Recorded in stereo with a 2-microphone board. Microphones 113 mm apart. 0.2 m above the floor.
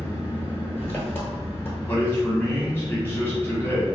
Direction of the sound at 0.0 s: 20° left (ahead or behind).